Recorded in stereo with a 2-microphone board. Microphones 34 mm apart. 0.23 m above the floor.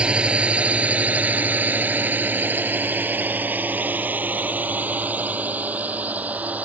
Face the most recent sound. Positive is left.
turn(degrees=-50)  # may be behind; listen again after turning